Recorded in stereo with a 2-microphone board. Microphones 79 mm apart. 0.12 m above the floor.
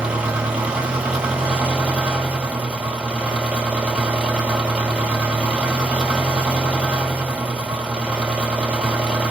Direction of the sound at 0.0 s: 15° right (ahead or behind).